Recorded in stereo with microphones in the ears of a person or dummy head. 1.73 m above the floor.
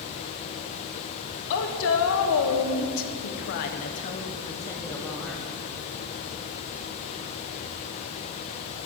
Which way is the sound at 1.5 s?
70° left (ahead or behind).